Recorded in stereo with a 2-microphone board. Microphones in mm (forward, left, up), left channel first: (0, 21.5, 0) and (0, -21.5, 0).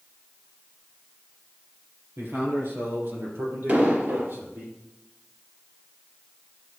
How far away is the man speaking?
About 3.5 m.